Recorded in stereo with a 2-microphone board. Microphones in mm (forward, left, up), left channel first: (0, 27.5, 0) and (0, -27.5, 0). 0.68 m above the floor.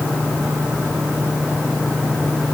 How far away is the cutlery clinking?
No cutlery clinking in this recording.